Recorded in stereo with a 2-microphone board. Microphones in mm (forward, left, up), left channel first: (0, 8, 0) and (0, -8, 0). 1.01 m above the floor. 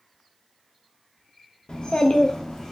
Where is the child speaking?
60° left (ahead or behind), 0.6 m; by 2.7 s 40° left (ahead or behind), 0.6 m.